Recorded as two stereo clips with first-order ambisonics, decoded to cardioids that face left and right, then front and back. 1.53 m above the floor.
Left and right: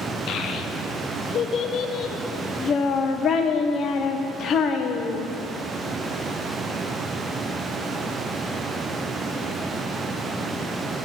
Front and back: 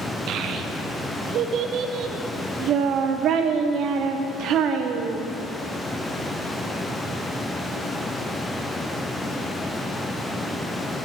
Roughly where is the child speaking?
Behind left.